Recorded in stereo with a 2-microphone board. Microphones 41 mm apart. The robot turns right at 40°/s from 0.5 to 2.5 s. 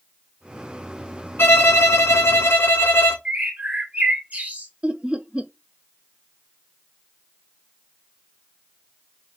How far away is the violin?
About 1.2 m.